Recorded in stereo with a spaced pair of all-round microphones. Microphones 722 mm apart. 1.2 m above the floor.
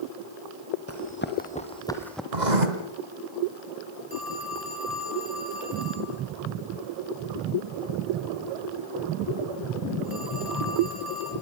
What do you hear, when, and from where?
0.9 s running footsteps: 20° left (ahead or behind), 2.5 m; by 2.2 s centre (ahead or behind), 2.5 m
2.3 s writing: 75° right (ahead or behind), 3 m
4.1 s a phone ringing: 30° left (ahead or behind), 6 m